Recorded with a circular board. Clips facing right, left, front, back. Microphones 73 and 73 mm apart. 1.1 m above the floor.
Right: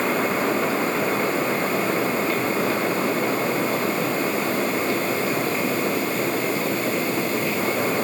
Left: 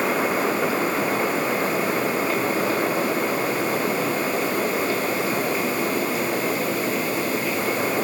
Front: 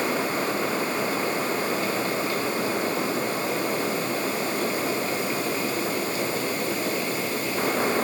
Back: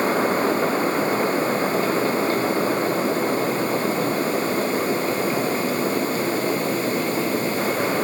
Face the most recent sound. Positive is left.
No sound to turn to.